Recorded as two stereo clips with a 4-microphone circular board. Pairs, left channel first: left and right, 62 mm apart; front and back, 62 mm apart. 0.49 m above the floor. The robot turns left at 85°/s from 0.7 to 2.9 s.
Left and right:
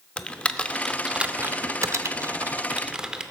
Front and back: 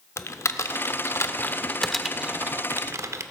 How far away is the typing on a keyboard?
About 0.6 m.